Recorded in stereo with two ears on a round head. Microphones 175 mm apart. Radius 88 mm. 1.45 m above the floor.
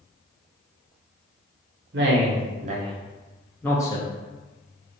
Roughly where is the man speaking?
Right.